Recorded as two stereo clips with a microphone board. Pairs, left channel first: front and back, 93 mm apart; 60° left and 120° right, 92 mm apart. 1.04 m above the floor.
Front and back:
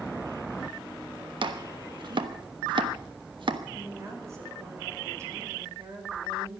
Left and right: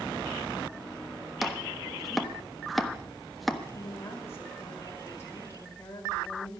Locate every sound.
1.4 s chopping: 150° left, 1.1 m
3.7 s a woman speaking: 120° left, 4.5 m